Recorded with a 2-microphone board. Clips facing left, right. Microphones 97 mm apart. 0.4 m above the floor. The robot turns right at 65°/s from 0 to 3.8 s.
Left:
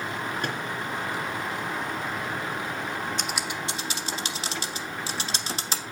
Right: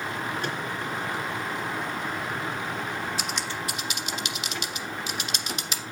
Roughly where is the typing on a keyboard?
Centre.